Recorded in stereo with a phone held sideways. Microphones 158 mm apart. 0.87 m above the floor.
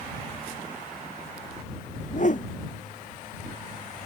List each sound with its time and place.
2.0 s a whoosh: 55° left (ahead or behind)